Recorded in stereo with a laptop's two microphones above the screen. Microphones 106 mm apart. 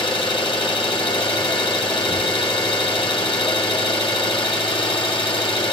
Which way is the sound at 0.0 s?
55° left (ahead or behind).